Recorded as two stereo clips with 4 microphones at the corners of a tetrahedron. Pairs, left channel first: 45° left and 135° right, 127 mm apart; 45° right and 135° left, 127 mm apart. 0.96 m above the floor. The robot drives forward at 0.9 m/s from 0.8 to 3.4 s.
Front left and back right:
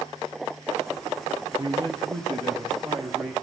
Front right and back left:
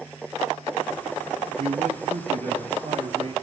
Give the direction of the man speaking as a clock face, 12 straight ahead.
7 o'clock.